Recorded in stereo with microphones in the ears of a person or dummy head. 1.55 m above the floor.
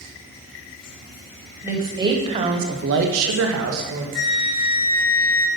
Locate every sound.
1.6 s a woman speaking: 10° right (ahead or behind), 1.1 m; by 4.0 s 65° right (ahead or behind), 1.0 m
4.2 s a flute: 70° left (ahead or behind), 1.7 m